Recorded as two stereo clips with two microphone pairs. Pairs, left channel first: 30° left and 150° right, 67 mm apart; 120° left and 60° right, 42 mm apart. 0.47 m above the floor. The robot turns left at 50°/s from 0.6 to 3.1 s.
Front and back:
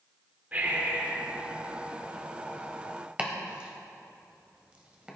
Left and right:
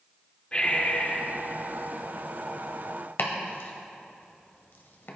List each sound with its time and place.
0.5 s breathing: 165° left, 1.2 m; by 1.3 s 130° left, 1.2 m
3.2 s chopping: 140° left, 1.3 m